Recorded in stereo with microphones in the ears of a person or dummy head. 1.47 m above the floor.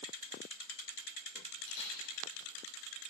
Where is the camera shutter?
75° left (ahead or behind), 4.5 m.